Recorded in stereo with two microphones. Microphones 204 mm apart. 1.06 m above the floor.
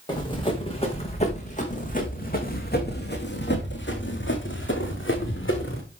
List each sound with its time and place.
0.1 s running footsteps: 20° left (ahead or behind), 4 m; by 5.8 s 75° left (ahead or behind), 4 m